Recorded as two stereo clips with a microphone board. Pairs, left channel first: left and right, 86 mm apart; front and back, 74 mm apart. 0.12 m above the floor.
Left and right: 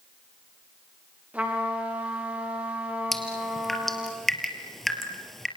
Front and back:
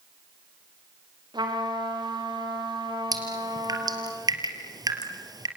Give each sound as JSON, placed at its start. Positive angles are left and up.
{"t": 1.3, "sound": "a trumpet", "azimuth_deg": -160, "distance_m": 7.5}
{"t": 3.1, "sound": "dripping", "azimuth_deg": 175, "distance_m": 3.0}